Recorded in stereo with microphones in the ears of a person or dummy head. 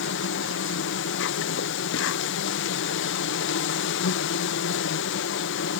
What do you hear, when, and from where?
0.0 s an insect: 60° left (ahead or behind)